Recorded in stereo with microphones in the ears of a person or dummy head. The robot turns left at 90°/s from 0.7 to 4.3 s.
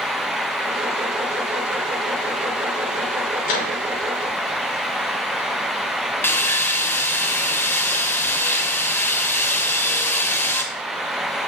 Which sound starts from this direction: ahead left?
A microwave, at 3.4 s.